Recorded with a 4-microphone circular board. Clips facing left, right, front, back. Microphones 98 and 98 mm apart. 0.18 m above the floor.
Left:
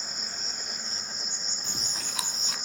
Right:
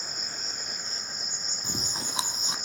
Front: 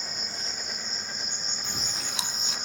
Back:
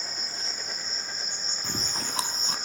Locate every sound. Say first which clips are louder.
0.0 s an insect: even, even; 125° right, 3.5 m
1.6 s chewing: right 6 dB, back 5 dB; 150° right, 0.9 m